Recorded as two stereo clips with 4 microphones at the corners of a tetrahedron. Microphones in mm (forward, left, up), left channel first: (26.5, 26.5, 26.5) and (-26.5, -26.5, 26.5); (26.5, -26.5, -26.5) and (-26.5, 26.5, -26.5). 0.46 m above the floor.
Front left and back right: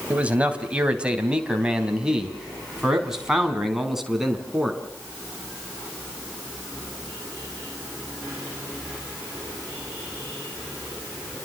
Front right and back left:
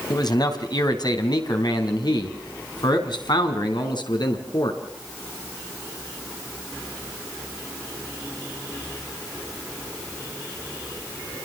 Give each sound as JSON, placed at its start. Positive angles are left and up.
{"t": 0.1, "sound": "a man speaking", "azimuth_deg": -60, "distance_m": 3.0}